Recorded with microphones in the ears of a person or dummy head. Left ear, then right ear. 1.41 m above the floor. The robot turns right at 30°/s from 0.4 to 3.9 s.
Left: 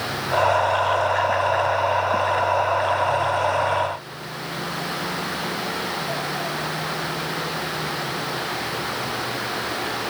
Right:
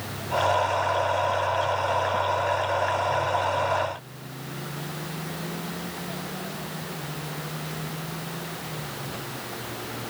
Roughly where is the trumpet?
No trumpet in this recording.